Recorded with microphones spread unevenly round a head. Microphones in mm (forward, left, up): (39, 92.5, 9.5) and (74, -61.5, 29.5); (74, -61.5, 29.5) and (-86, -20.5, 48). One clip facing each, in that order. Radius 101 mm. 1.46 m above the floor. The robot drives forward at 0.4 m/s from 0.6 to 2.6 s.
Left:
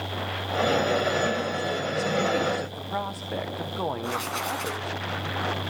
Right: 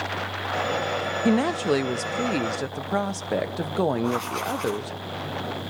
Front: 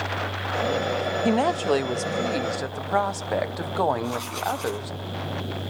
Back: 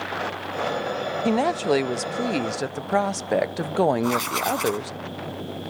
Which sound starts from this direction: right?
A woman speaking, at 1.2 s.